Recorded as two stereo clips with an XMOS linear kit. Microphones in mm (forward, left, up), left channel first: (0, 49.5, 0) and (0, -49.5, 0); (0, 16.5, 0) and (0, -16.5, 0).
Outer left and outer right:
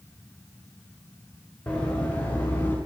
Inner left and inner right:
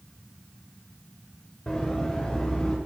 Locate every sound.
1.7 s running footsteps: 10° left (ahead or behind), 4.5 m; by 2.8 s 20° left (ahead or behind), 5.5 m